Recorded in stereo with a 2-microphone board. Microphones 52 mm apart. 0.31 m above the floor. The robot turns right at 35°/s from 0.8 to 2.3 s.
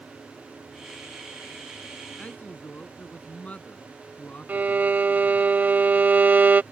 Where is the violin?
35° right (ahead or behind).